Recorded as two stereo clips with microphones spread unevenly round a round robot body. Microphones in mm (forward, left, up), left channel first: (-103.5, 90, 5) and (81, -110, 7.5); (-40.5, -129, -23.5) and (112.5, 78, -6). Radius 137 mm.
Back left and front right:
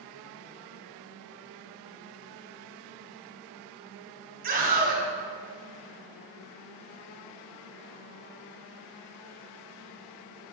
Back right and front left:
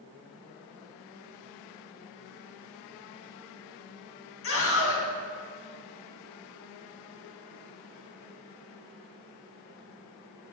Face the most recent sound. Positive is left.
turn(degrees=-100)